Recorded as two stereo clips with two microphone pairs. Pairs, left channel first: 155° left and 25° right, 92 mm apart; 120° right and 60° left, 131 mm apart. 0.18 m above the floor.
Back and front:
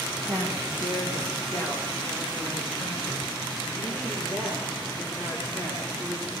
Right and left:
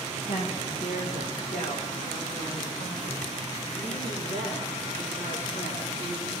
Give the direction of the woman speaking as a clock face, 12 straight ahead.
4 o'clock.